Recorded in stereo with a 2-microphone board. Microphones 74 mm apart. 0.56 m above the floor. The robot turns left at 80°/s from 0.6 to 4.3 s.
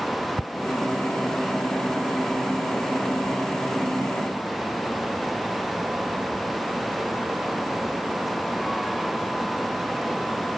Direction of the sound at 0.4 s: 70° right (ahead or behind).